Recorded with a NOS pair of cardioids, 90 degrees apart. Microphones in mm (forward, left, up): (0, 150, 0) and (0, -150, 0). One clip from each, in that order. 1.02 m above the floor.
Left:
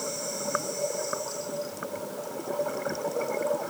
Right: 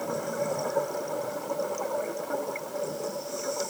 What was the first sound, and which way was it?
Only background noise.